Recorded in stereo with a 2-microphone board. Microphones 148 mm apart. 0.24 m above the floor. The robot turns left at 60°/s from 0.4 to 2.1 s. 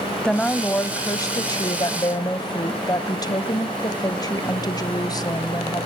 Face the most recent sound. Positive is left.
turn(degrees=25)  # may be behind; listen again after turning